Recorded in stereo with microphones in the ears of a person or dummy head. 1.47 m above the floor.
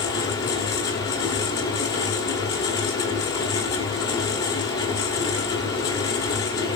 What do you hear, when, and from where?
0.0 s a fan: 20° left (ahead or behind), 1.8 m